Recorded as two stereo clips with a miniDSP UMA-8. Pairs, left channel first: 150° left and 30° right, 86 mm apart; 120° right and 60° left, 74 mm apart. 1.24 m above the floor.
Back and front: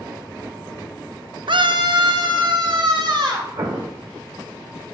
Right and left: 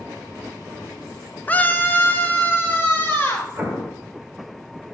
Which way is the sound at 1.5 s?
50° right.